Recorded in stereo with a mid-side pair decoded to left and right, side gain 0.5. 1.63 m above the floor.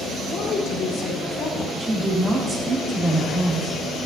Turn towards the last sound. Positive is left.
turn(degrees=-35)